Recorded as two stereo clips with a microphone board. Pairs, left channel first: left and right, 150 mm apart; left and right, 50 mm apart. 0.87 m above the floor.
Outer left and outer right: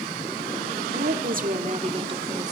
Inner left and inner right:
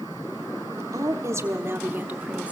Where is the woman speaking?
75° right (ahead or behind), 1.8 m; by 2.5 s 25° right (ahead or behind), 2.5 m.